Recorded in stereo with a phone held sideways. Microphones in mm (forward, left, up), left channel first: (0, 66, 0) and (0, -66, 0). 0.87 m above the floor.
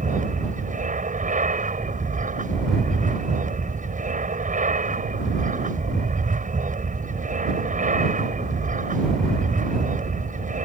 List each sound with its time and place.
0.0 s an aircraft: 70° right (ahead or behind)